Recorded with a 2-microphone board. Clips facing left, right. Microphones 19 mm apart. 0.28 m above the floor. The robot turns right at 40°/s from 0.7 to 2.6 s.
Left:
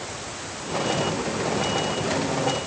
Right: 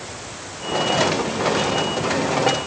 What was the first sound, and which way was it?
Only background noise.